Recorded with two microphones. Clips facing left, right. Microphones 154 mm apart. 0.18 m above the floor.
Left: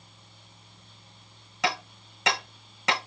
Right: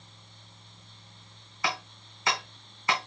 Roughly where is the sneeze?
No sneeze in this recording.